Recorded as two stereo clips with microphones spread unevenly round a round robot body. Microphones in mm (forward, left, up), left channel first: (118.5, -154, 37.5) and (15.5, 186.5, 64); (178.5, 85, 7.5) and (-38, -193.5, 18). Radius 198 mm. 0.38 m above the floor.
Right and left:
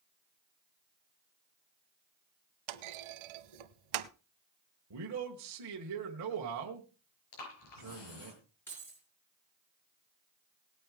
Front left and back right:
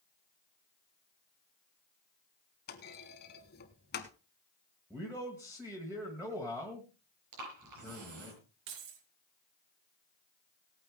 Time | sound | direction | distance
2.7 | a clunk | 120° left | 0.8 m
4.9 | a man speaking | 150° left | 1.8 m
7.3 | breathing | 90° right | 6 m
8.7 | keys jangling | 155° right | 4.5 m